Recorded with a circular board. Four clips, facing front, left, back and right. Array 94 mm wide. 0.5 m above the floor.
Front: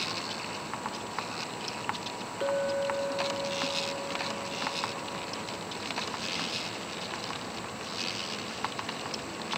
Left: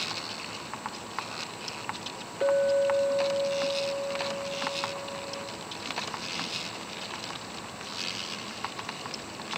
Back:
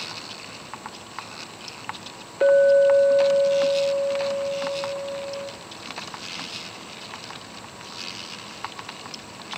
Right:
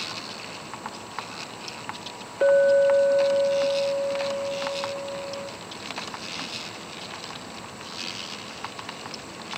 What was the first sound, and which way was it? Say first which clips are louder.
A clink: right 6 dB, back 14 dB; 150° right.